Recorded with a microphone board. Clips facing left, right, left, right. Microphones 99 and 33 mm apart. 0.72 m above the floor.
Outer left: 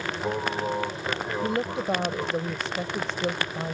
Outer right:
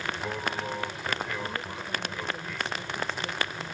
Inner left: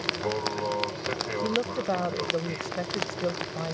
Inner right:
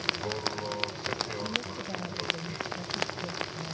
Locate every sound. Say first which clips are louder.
0.0 s an aircraft: outer left 4 dB, inner left 3 dB; 25° left (ahead or behind)
1.4 s a woman speaking: outer left 9 dB, inner left 7 dB; 80° left